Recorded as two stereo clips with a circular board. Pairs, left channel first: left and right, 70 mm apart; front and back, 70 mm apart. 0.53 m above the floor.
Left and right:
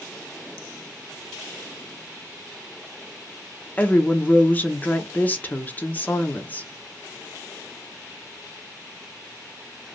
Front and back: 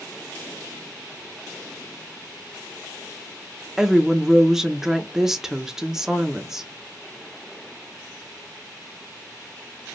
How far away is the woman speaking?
About 0.7 m.